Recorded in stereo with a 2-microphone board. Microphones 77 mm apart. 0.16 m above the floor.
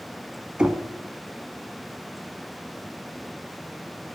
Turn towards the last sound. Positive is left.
turn(degrees=-15)  # may be behind; listen again after turning